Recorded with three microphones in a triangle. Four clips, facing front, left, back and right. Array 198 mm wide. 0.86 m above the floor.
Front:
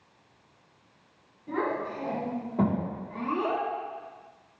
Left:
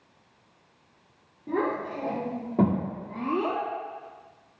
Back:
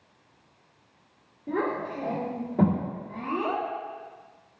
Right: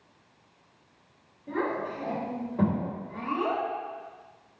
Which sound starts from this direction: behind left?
A child speaking, at 1.5 s.